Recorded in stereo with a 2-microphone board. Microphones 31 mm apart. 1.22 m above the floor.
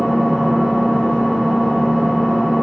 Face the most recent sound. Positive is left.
turn(degrees=35)  # may be behind; listen again after turning